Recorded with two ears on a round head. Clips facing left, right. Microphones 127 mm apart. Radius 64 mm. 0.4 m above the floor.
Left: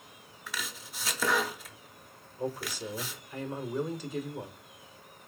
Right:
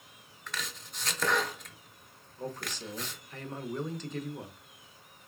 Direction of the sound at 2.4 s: 10° left (ahead or behind).